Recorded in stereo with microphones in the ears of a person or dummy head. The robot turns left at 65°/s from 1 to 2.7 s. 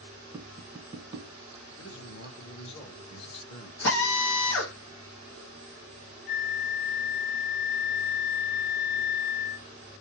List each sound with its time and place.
0.3 s tapping: 20° right (ahead or behind), 1.0 m; by 1.3 s 35° right (ahead or behind), 1.0 m
1.8 s a man speaking: 95° left, 0.9 m; by 3.7 s 35° left, 0.9 m
3.8 s a drill: 70° left (ahead or behind), 1.2 m
6.3 s a flute: 50° left (ahead or behind), 0.6 m